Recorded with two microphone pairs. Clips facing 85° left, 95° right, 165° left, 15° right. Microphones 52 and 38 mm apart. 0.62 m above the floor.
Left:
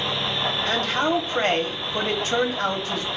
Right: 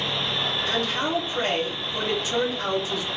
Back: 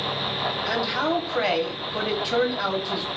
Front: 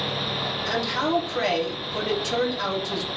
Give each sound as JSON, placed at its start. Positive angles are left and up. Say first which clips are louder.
{"t": 0.7, "sound": "a man speaking", "louder": "left 4 dB, even", "azimuth_deg": 100, "distance_m": 1.0}